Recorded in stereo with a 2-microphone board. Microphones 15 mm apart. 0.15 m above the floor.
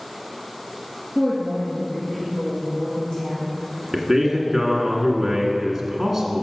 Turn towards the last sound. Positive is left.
turn(degrees=-10)  # may be behind; listen again after turning